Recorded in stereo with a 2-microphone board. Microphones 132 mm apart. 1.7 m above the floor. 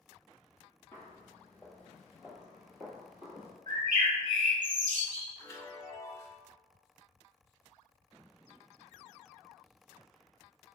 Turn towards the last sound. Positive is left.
turn(degrees=25)  # may be behind; listen again after turning